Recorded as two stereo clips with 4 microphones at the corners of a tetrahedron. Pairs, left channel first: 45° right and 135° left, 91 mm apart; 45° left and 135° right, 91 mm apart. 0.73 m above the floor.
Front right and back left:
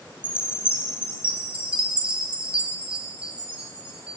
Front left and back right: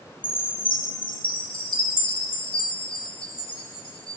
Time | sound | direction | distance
0.2 | a chime | 60° left | 0.7 m